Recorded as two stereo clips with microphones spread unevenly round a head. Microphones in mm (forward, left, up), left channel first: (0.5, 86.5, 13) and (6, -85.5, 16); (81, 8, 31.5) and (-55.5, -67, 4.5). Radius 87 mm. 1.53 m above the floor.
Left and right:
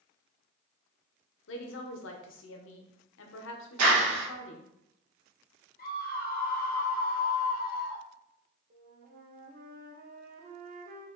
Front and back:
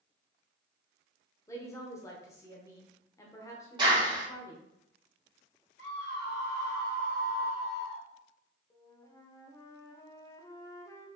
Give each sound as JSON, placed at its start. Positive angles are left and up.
{"t": 1.5, "sound": "a woman speaking", "azimuth_deg": 105, "distance_m": 0.8}
{"t": 3.8, "sound": "a clap", "azimuth_deg": -90, "distance_m": 1.9}
{"t": 5.8, "sound": "a scream", "azimuth_deg": 50, "distance_m": 1.6}
{"t": 8.7, "sound": "a flute", "azimuth_deg": -45, "distance_m": 0.6}